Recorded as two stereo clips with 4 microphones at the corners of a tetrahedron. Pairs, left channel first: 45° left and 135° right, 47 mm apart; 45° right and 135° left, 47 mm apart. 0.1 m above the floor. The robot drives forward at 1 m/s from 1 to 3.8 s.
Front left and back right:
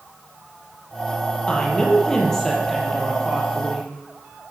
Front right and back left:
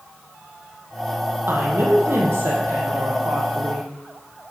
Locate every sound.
1.5 s a woman speaking: 110° left, 3 m; by 3.9 s 140° left, 4.5 m